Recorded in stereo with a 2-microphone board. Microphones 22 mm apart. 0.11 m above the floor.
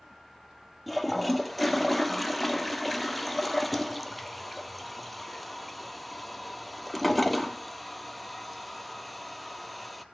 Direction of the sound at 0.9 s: Centre (ahead or behind).